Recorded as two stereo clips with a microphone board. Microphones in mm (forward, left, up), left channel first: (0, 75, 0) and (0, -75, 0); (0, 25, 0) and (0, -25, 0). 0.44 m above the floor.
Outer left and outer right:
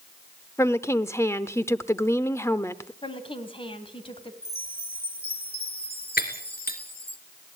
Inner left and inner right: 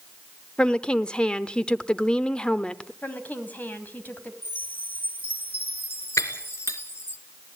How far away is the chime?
About 2.5 m.